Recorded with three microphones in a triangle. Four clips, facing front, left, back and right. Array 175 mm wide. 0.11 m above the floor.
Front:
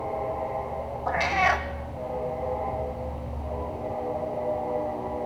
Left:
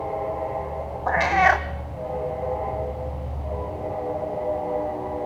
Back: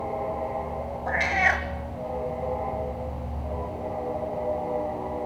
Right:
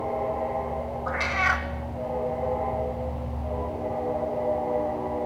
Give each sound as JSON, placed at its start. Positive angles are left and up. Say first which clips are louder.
{"t": 1.1, "sound": "a cat meowing", "louder": "left 9 dB, front 1 dB", "azimuth_deg": 75, "distance_m": 1.4}